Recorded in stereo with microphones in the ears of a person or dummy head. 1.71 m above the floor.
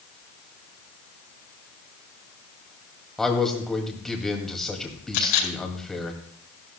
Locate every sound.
3.2 s a man speaking: centre (ahead or behind), 2 m
5.1 s a camera shutter: 75° left (ahead or behind), 5 m